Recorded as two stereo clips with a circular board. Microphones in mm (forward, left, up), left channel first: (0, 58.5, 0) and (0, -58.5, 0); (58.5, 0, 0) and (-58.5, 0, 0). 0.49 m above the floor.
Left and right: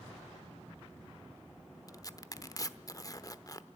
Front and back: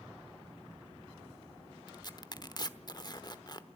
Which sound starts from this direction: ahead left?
Tearing paper, at 1.9 s.